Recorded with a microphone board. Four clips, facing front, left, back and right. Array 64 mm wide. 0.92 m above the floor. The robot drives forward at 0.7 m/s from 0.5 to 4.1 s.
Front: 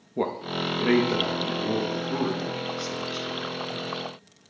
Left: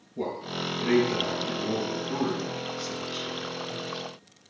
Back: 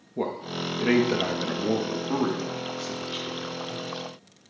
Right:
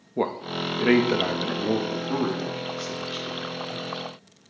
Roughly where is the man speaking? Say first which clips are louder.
Right 5 dB, front 2 dB; right.